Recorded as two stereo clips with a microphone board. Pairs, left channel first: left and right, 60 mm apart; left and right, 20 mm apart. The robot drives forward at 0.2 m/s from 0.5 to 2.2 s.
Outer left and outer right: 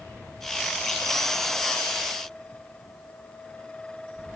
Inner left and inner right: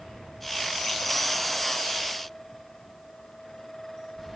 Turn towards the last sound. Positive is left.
No sound to turn to.